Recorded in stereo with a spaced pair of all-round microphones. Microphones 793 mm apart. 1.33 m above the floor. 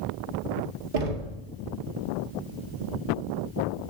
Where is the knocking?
75° right (ahead or behind), 1.8 m.